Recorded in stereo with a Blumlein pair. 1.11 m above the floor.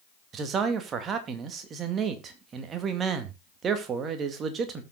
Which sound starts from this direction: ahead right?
A man speaking, at 0.3 s.